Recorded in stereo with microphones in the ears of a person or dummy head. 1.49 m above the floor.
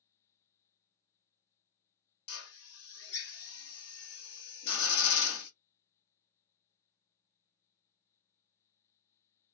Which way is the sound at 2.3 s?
70° left (ahead or behind).